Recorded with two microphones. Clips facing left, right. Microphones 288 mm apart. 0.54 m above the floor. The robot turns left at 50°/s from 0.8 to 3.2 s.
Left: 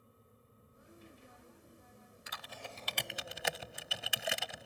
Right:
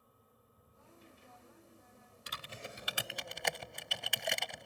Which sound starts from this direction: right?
Typing on a keyboard, at 2.3 s.